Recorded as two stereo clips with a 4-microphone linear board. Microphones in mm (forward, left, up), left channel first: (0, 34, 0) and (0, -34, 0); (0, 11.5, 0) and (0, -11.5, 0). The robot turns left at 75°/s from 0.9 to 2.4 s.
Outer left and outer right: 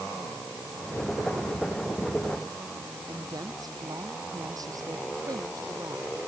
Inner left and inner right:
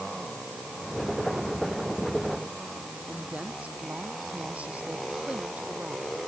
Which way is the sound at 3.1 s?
65° right (ahead or behind).